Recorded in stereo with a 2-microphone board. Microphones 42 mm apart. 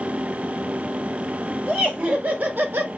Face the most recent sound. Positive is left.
turn(degrees=-60)  # may be behind; listen again after turning